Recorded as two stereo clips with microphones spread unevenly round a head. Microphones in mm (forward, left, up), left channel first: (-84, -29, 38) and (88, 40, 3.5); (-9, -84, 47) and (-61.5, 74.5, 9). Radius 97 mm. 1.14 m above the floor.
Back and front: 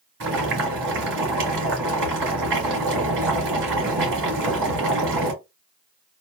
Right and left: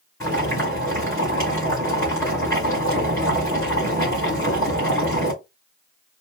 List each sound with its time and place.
0.2 s boiling: 5° left, 3 m